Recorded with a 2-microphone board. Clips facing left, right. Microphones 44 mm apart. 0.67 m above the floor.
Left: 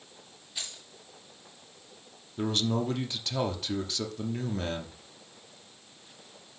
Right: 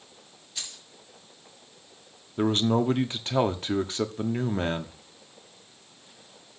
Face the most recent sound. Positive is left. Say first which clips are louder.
# right 6 dB
turn(degrees=-40)  # may be behind; listen again after turning